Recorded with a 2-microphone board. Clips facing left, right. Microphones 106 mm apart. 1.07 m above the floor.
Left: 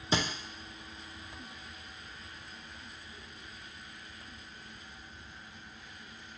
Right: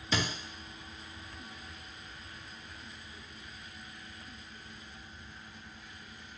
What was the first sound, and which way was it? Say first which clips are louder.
A thud: left 2 dB; 25° left (ahead or behind).